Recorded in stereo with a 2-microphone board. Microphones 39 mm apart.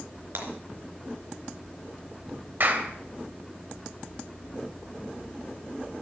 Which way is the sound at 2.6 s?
55° right (ahead or behind).